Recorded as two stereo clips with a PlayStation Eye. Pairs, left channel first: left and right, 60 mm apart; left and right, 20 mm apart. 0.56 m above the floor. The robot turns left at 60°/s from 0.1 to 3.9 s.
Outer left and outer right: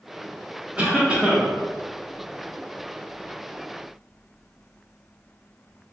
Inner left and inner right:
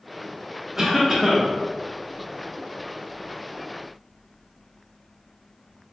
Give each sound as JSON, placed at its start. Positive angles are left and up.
{"t": 0.8, "sound": "a cough", "side_deg": -20, "distance_m": 0.7}